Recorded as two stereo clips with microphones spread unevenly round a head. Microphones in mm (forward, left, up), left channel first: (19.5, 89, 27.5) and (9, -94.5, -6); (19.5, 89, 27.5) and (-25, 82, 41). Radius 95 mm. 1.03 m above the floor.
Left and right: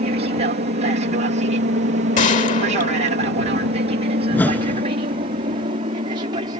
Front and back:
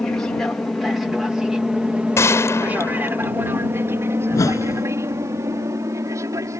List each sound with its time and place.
0.0 s an aircraft: 60° right; by 6.6 s 155° right
2.2 s a gunshot: 35° left
4.3 s a whoosh: 5° left